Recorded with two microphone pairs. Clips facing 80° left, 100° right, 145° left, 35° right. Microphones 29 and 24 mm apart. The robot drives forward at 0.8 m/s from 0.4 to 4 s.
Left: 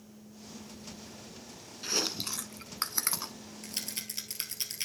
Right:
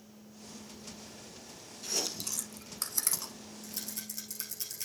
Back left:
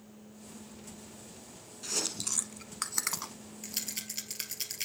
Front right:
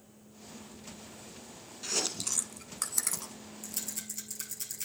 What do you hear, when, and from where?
1.8 s chewing: 40° left, 1.2 m; by 3.3 s 125° left, 1.0 m
3.6 s a rattle: 95° left, 1.2 m; by 4.9 s 110° left, 1.3 m